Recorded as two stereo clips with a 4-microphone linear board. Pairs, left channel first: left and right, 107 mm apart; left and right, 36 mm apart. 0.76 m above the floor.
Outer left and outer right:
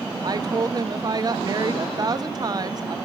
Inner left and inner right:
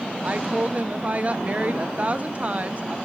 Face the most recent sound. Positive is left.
turn(degrees=-40)  # may be behind; listen again after turning